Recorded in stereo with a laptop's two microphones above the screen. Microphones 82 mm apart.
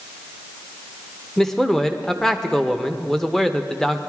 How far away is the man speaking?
About 0.9 m.